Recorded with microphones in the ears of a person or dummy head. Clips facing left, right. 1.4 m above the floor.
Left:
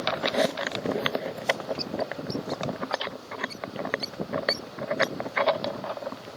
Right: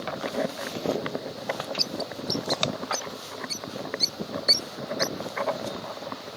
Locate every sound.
1.8 s a bird: 20° right (ahead or behind)